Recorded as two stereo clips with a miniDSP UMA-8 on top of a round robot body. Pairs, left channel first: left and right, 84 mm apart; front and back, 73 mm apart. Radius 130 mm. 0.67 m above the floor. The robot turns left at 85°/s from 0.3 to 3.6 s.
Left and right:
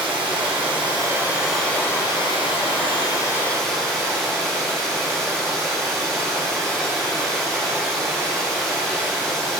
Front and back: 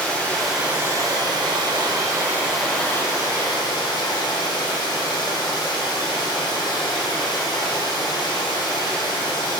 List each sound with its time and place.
0.0 s running water: 75° right, 1.8 m; by 9.6 s 5° left, 1.8 m